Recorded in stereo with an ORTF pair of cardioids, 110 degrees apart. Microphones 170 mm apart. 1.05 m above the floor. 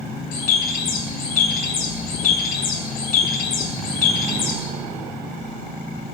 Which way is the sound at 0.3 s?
60° left.